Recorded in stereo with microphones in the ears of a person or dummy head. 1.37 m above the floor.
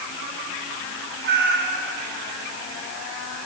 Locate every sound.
1.2 s a cat meowing: 60° right (ahead or behind), 1.7 m